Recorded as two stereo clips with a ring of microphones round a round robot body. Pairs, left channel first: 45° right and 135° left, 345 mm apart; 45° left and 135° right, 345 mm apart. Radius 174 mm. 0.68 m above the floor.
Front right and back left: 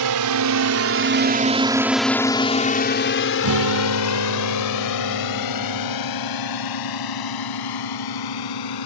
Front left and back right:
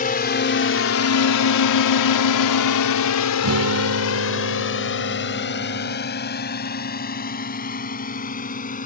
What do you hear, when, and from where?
0.0 s a drone: 110° left; by 8.9 s 25° right
3.4 s a guitar: 175° left